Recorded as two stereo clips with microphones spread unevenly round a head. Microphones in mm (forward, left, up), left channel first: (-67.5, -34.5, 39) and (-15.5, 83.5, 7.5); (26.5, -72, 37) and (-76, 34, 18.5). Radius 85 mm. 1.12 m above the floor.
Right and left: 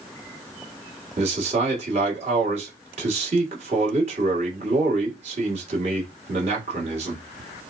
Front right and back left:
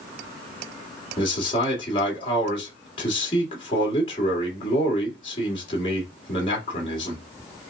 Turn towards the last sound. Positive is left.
turn(degrees=15)